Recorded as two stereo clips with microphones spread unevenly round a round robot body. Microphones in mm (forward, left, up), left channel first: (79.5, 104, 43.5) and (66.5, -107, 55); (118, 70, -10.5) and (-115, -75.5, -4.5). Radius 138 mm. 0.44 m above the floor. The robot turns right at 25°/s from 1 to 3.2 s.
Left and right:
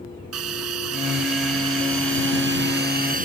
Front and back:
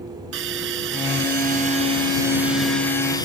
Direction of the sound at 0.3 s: 100° right.